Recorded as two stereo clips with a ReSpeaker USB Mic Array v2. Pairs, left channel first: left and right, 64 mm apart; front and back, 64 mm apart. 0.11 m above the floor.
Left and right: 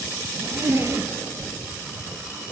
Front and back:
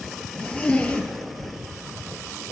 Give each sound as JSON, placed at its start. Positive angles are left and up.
{"t": 0.3, "sound": "a zipper", "azimuth_deg": -65, "distance_m": 1.0}